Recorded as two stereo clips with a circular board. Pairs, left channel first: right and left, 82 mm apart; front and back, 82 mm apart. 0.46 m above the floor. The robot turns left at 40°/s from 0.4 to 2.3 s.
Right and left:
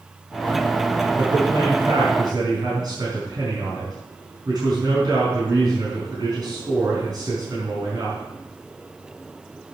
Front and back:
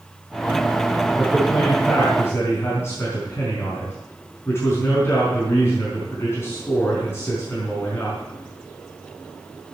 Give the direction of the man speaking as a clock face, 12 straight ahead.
9 o'clock.